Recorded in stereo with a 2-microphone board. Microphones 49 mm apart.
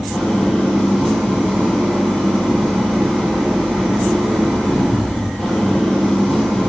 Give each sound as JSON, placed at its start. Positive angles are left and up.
{"t": 0.0, "sound": "an engine running", "side_deg": 10, "distance_m": 1.9}